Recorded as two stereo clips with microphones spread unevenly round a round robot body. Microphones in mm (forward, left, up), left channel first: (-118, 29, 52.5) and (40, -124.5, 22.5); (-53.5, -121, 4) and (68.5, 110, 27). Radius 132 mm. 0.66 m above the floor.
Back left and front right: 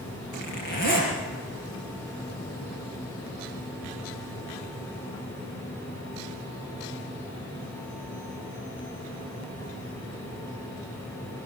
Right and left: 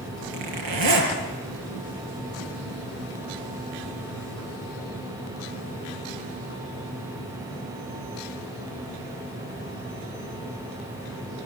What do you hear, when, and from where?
0.3 s a zipper: 75° left, 6 m